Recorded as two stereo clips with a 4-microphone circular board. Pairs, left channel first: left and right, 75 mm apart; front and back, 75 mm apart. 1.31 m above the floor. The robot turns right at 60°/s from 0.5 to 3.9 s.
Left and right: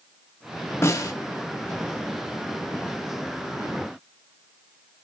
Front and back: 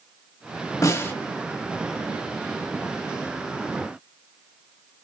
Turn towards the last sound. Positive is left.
turn(degrees=-135)